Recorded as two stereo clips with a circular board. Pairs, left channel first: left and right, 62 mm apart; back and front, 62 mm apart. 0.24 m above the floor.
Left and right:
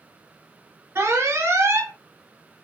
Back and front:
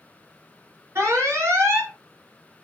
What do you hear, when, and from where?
0.9 s an alarm: 45° right, 3 m